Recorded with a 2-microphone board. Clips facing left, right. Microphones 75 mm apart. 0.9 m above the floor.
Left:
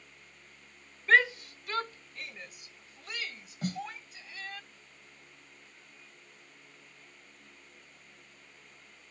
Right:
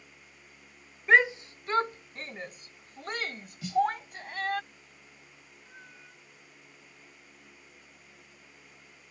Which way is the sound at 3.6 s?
50° left (ahead or behind).